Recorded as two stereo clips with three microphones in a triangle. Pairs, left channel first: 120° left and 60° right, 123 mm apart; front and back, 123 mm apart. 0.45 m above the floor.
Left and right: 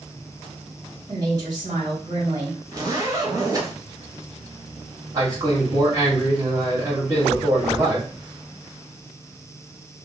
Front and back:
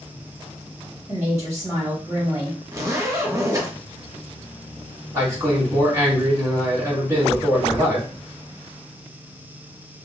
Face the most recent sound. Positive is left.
turn(degrees=-115)